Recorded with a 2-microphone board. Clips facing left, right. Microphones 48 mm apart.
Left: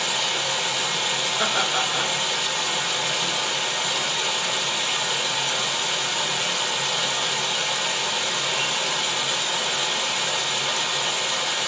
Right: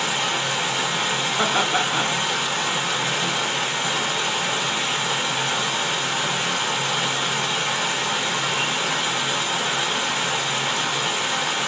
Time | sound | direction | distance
0.0 | running water | 30° right (ahead or behind) | 1.2 m
1.4 | laughter | 55° right (ahead or behind) | 1.6 m